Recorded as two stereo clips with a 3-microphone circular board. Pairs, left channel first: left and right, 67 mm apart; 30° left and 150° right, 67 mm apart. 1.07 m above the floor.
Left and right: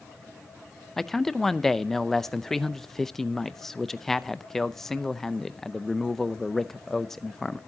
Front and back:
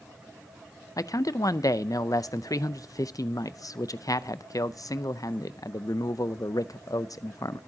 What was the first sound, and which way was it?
A man speaking, 5° left.